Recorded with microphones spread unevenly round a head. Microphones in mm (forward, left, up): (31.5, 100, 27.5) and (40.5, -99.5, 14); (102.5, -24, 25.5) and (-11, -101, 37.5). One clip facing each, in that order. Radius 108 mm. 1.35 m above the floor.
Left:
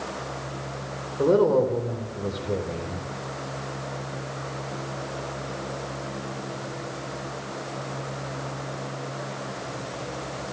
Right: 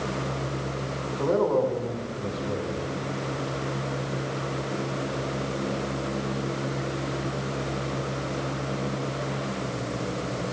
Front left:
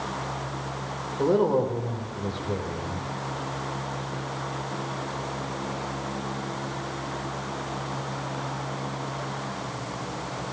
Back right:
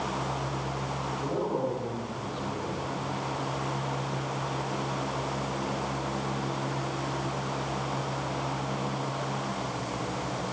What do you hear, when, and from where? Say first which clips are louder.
1.2 s a woman speaking: left 4 dB, front left 9 dB; 45° left, 4.5 m